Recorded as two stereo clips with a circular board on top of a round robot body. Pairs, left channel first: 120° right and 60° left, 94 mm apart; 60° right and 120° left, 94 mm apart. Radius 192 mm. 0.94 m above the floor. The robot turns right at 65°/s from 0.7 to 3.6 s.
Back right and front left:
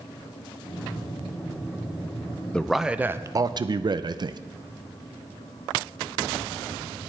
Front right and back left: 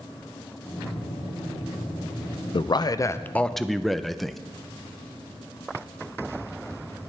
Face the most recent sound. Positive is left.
turn(degrees=30)